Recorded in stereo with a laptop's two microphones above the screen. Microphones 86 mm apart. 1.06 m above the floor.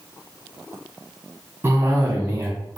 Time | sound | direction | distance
1.6 | a cough | 25° right (ahead or behind) | 0.6 m